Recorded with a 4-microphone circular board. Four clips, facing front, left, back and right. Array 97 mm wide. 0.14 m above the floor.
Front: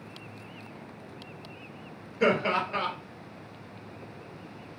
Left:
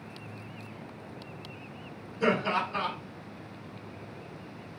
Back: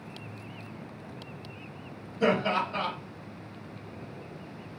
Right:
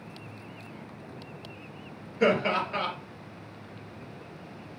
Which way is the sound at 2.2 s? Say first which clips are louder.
Right 3 dB, front 1 dB; 45° right.